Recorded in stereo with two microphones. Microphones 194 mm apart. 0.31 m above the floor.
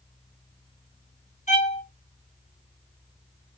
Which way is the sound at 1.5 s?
40° left (ahead or behind).